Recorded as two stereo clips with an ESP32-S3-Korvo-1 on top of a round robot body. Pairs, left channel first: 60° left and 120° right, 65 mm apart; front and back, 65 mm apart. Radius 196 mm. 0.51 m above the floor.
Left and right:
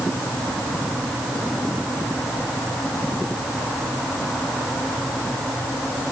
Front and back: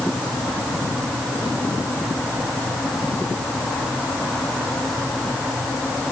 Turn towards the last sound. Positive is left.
No sound to turn to.